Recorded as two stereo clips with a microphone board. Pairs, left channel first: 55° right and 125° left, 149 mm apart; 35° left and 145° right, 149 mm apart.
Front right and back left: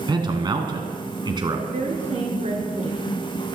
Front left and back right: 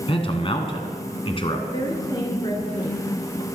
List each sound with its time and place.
0.1 s a man speaking: 75° left, 1.7 m
1.7 s a woman speaking: 90° left, 3.5 m